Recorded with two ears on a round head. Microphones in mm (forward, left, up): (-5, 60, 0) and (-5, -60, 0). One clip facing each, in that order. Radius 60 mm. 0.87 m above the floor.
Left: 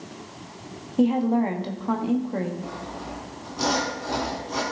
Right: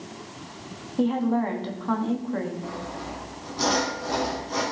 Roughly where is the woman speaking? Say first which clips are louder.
Left 3 dB; centre.